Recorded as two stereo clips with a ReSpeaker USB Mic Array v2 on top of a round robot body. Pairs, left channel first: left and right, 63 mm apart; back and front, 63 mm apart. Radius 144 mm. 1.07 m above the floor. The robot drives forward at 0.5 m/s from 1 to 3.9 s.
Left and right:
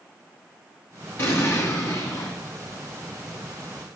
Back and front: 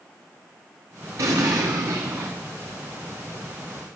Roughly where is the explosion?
Ahead left.